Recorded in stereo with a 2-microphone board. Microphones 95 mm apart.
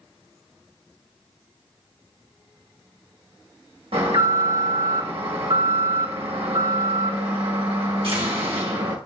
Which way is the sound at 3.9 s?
70° right (ahead or behind).